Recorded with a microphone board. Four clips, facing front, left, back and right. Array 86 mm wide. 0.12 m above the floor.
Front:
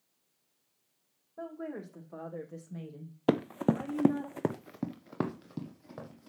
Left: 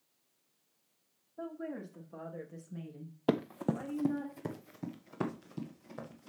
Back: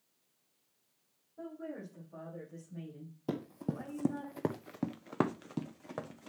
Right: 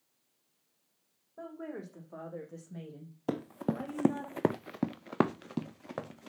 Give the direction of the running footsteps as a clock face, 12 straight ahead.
11 o'clock.